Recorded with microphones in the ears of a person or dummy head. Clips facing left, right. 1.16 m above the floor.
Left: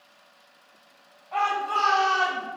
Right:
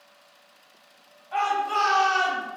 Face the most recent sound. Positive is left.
turn(degrees=-25)  # may be behind; listen again after turning